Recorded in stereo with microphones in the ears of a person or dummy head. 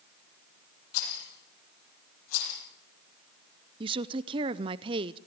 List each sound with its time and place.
0.9 s a rattle: 80° left, 7.5 m
3.8 s a woman speaking: 20° right (ahead or behind), 0.5 m